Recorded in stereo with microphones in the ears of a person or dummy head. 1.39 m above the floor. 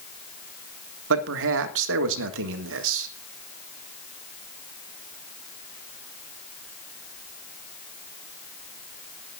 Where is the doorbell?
I don't hear a doorbell.